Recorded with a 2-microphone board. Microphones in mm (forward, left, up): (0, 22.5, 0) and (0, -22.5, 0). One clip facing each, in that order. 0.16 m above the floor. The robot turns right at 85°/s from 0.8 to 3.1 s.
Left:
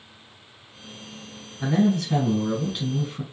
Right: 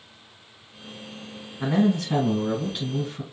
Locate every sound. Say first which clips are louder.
1.6 s a man speaking: even; 90° right, 1.5 m; by 3.2 s 35° left, 1.5 m